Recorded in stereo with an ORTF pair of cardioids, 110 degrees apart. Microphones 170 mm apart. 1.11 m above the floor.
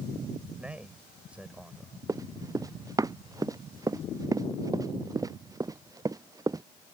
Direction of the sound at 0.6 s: 5° right.